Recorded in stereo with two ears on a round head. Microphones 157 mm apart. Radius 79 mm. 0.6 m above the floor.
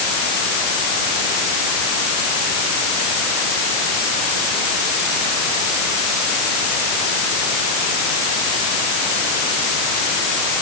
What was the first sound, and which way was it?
Only background noise.